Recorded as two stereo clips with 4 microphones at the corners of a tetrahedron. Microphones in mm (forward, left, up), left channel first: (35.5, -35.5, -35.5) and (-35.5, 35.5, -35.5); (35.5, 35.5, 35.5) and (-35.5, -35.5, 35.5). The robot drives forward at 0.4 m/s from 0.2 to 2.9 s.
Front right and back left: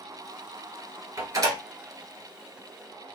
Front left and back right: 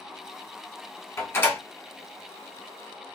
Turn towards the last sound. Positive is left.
turn(degrees=135)